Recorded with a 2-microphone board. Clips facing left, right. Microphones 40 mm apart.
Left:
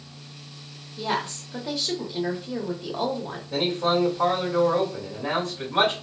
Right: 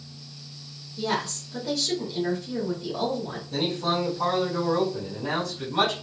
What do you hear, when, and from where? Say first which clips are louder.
1.0 s a woman speaking: even; 25° left (ahead or behind), 1.1 m
3.5 s a man speaking: left 3 dB; 45° left (ahead or behind), 1.9 m